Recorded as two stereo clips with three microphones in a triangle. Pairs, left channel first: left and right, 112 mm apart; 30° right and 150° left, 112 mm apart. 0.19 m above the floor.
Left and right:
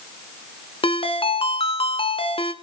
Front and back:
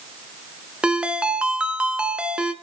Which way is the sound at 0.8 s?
70° left.